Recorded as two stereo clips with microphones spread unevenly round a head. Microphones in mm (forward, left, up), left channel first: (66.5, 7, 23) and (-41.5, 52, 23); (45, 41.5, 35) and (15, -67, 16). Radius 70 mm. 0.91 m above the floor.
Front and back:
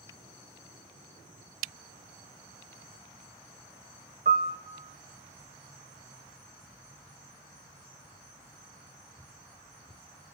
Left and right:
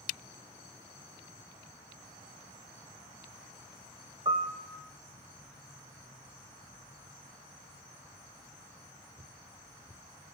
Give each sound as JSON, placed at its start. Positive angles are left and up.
{"t": 4.2, "sound": "a piano", "azimuth_deg": -170, "distance_m": 1.1}